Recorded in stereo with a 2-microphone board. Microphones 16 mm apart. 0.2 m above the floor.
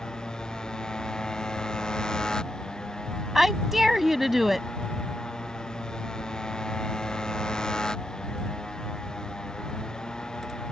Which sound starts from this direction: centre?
A woman speaking, at 3.4 s.